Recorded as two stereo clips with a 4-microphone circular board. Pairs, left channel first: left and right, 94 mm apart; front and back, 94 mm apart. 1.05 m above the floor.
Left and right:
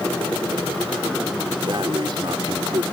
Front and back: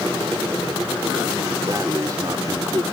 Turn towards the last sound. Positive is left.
turn(degrees=-130)